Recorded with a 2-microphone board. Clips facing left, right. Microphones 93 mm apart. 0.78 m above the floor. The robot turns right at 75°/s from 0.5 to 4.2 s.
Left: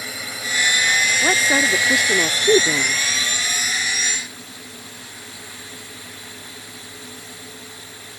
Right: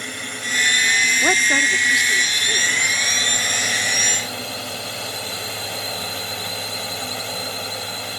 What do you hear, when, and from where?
0.0 s a drone: 5° left; by 8.2 s 75° right
1.2 s a woman speaking: 10° right; by 3.0 s 125° left